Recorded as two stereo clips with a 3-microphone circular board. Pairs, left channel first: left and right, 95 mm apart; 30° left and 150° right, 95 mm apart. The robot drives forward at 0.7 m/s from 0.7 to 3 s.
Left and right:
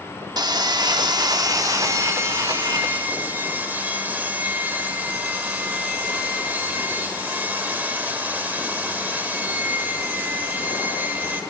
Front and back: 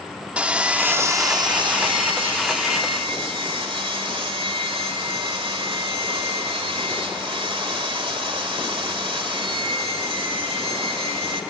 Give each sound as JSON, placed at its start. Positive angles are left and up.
{"t": 0.4, "sound": "sawing", "azimuth_deg": -80, "distance_m": 0.8}